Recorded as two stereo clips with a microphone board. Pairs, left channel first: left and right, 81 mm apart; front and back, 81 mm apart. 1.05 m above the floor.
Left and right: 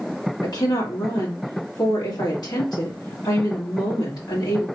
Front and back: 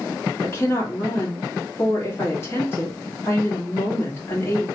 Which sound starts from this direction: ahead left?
A woman speaking, at 0.4 s.